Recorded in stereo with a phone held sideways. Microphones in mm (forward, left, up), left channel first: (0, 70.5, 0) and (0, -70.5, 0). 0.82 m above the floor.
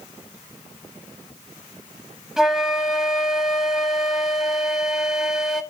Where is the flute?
5° right (ahead or behind), 0.8 m.